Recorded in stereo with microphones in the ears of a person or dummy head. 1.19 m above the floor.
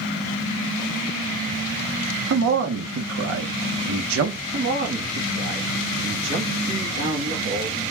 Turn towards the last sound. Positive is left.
turn(degrees=-65)  # may be behind; listen again after turning